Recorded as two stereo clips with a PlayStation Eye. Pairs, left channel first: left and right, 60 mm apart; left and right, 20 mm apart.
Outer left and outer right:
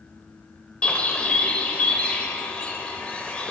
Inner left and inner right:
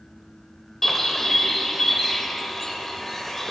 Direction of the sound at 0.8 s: 20° left (ahead or behind).